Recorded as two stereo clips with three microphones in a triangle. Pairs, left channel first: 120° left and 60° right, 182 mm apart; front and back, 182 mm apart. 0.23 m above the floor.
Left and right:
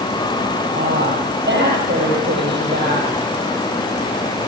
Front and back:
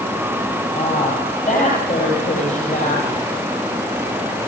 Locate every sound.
0.7 s a woman speaking: 45° right, 8 m